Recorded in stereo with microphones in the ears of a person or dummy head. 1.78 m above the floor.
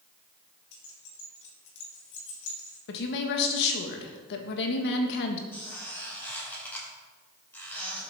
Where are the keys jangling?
65° left (ahead or behind), 3.5 m.